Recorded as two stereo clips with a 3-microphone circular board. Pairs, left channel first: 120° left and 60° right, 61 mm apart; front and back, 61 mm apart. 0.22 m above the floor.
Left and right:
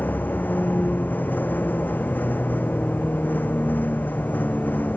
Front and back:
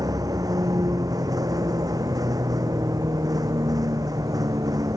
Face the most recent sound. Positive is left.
turn(degrees=180)